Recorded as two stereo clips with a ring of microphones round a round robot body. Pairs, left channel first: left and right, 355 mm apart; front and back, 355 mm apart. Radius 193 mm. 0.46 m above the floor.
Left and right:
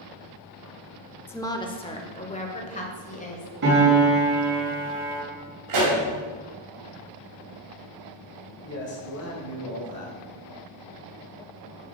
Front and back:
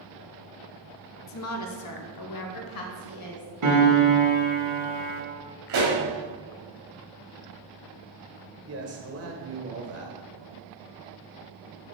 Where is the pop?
130° right, 2.5 m.